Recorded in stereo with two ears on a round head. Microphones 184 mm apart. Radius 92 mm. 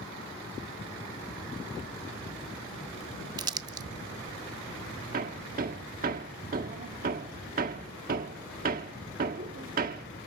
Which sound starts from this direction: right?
Hammering, at 5.1 s.